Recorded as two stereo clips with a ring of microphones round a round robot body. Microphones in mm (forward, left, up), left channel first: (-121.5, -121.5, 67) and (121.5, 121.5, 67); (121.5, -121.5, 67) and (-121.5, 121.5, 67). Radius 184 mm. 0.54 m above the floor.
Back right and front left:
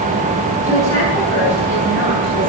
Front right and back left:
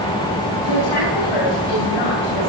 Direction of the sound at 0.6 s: 55° right.